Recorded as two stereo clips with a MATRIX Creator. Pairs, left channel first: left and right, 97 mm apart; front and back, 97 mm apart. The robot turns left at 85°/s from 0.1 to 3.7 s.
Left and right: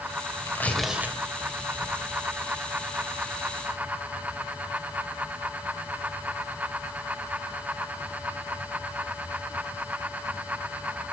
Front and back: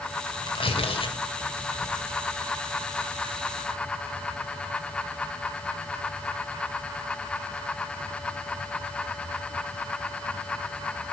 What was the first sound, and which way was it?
Tearing paper, 30° left.